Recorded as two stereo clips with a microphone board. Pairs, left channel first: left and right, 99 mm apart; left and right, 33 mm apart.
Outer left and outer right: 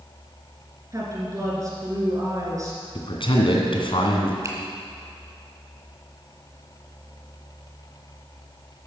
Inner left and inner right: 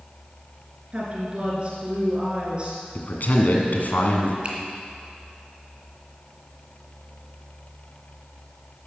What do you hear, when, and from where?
0.9 s a woman speaking: 35° right (ahead or behind), 3 m
3.0 s a man speaking: 60° left (ahead or behind), 2 m
4.4 s a finger snap: 35° right (ahead or behind), 2 m